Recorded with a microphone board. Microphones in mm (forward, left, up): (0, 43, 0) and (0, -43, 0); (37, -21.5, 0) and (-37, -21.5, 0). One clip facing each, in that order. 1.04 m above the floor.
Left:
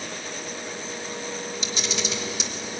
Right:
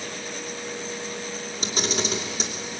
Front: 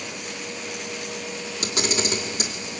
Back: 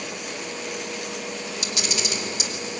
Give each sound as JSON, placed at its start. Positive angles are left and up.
{"t": 1.6, "sound": "a camera shutter", "azimuth_deg": -45, "distance_m": 2.5}